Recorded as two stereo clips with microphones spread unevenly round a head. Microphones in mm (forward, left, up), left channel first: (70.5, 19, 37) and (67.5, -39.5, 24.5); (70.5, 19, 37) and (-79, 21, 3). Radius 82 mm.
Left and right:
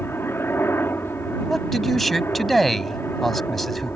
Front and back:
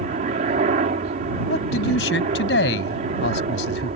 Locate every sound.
0.0 s a helicopter: 155° left
1.5 s a man speaking: straight ahead